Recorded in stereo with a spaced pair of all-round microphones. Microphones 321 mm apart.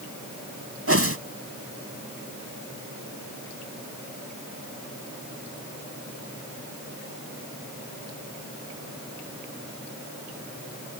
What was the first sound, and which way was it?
A whoosh, 45° right (ahead or behind).